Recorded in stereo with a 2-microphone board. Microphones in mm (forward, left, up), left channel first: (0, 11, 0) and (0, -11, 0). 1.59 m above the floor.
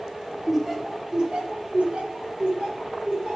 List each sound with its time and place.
0.5 s laughter: 5° right (ahead or behind), 0.8 m; by 3.4 s 65° right (ahead or behind), 1.4 m